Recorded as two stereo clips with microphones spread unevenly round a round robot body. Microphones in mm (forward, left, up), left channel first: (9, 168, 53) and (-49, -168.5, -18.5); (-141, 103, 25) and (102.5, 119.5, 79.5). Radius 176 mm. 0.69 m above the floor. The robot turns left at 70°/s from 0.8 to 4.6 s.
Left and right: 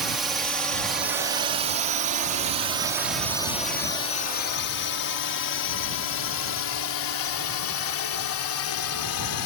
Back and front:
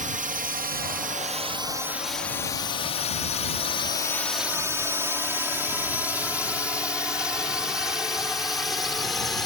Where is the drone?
40° right; by 9.5 s 105° left.